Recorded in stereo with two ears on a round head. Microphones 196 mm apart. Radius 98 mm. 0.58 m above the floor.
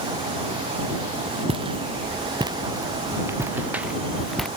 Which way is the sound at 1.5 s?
25° right (ahead or behind).